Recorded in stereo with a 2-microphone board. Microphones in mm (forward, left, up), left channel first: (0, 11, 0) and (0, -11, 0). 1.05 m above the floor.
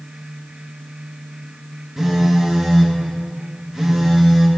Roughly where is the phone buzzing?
Right.